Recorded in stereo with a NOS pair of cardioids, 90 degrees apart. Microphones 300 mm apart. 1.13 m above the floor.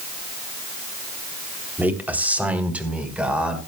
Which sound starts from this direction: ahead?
A man speaking, at 1.8 s.